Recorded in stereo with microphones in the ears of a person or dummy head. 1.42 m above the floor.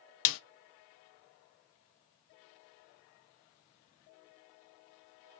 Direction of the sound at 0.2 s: 75° left (ahead or behind).